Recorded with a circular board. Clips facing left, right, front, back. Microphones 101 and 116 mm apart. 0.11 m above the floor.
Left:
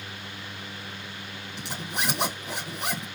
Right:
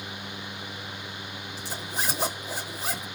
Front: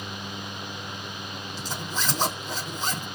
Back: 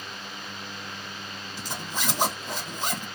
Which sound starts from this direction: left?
A zipper, at 1.6 s.